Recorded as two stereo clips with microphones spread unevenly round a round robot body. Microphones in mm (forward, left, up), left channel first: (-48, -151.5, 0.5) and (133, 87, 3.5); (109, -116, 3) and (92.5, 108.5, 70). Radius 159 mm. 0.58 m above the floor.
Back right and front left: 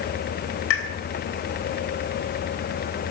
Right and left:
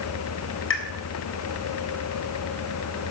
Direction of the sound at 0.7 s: 85° right.